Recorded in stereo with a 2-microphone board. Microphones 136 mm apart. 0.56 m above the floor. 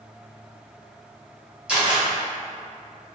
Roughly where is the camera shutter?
Centre.